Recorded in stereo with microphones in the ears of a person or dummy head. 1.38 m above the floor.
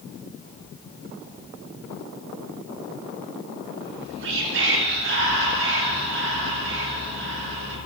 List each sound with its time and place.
3.8 s whispering: 65° right (ahead or behind), 3.5 m